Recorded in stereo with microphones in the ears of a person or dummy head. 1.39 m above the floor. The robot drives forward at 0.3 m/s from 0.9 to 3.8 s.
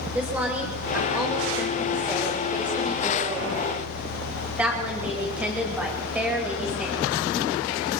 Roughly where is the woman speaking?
Centre.